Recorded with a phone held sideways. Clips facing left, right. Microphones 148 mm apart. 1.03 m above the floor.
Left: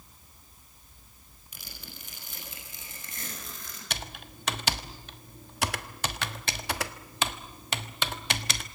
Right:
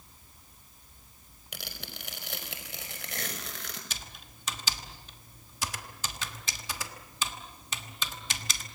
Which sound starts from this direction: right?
Tearing paper, at 1.5 s.